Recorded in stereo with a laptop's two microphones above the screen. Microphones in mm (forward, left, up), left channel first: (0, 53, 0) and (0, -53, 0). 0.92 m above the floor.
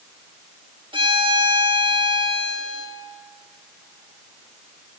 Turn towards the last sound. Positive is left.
turn(degrees=-50)  # may be behind; listen again after turning